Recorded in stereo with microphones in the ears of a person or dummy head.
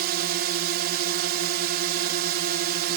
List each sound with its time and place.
0.0 s a drone: 50° right (ahead or behind)